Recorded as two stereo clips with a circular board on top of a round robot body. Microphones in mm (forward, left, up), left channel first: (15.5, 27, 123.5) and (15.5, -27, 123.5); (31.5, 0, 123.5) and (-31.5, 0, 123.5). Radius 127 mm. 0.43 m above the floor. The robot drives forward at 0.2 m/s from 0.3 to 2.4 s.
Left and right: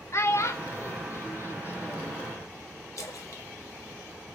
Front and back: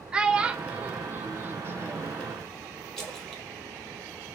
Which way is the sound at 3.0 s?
80° left.